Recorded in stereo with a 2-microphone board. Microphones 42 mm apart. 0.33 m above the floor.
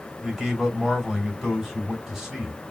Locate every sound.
0.2 s a man speaking: 10° right (ahead or behind), 1.9 m